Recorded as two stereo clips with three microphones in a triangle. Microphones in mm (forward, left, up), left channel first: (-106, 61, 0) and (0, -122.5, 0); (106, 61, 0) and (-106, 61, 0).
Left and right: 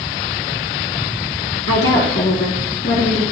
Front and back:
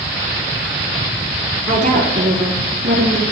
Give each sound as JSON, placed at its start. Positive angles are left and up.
{"t": 1.7, "sound": "a woman speaking", "azimuth_deg": 125, "distance_m": 4.5}